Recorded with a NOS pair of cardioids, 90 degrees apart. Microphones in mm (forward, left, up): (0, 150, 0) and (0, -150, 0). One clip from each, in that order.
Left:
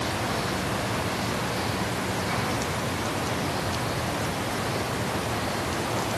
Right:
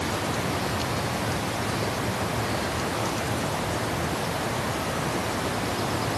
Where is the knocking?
No knocking in this recording.